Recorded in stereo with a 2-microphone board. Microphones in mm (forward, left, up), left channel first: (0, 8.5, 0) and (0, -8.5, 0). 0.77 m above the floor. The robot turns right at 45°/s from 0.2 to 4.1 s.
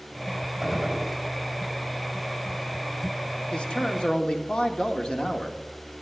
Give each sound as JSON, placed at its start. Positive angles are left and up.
{"t": 0.6, "sound": "a gunshot", "side_deg": -30, "distance_m": 3.0}
{"t": 3.5, "sound": "a man speaking", "side_deg": 75, "distance_m": 1.4}